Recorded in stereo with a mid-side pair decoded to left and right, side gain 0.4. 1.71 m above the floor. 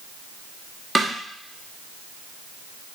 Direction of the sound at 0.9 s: 25° right.